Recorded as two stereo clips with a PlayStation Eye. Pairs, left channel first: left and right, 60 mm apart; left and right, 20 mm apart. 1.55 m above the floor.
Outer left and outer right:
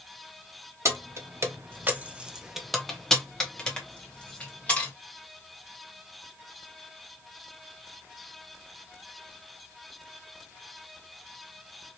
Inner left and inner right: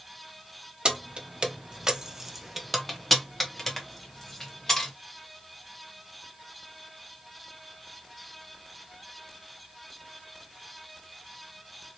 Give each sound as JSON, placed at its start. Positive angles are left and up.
{"t": 0.8, "sound": "keys jangling", "side_deg": -50, "distance_m": 0.7}